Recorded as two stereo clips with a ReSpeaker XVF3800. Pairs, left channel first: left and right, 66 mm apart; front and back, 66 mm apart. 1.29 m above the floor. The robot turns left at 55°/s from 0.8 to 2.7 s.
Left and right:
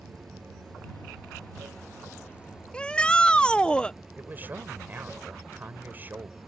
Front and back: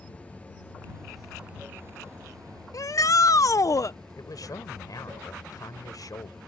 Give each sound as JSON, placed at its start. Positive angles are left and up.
{"t": 0.0, "sound": "running water", "azimuth_deg": -70}
{"t": 2.7, "sound": "a shout", "azimuth_deg": 15}
{"t": 4.2, "sound": "a man speaking", "azimuth_deg": -25}